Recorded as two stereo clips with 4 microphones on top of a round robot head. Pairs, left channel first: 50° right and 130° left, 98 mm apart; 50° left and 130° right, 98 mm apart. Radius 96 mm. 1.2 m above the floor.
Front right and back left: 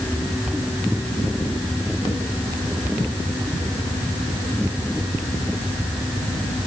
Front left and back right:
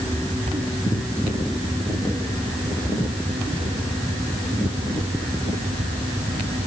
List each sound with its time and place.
Only background noise.